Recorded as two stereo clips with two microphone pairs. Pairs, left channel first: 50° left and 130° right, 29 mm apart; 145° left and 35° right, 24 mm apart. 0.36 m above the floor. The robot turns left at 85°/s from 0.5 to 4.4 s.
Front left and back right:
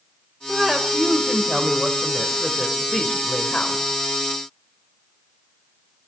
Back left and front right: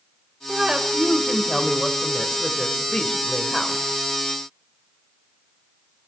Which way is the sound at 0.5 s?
25° right.